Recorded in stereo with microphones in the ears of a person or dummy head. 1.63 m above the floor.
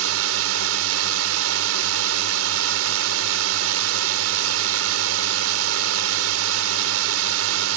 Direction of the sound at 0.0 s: 80° right.